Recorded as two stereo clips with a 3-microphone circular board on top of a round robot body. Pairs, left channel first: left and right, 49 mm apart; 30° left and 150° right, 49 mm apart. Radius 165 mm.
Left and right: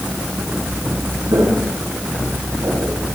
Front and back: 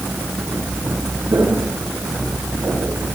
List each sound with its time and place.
1.3 s footsteps: 115° right, 9 m; by 3.0 s 110° right, 11 m